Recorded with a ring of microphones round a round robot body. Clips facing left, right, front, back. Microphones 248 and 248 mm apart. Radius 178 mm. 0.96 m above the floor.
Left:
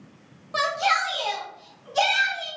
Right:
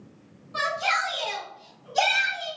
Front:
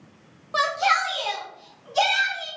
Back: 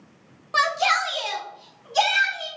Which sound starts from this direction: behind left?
A shout, at 0.5 s.